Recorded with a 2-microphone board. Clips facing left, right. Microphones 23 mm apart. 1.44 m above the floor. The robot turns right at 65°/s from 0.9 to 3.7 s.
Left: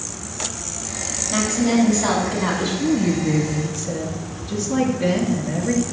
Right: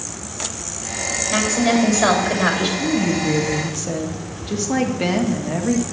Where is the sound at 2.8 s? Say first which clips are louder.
Even; 175° left, 1.8 m; by 5.8 s 130° right, 1.8 m.